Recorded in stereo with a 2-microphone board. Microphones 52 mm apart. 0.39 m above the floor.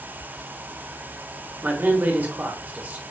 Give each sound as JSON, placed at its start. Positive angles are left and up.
{"t": 1.6, "sound": "a man speaking", "side_deg": -35, "distance_m": 1.1}